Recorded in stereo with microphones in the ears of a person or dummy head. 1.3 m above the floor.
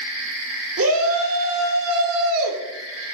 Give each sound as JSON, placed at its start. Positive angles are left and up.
{"t": 0.8, "sound": "a shout", "side_deg": -70, "distance_m": 1.6}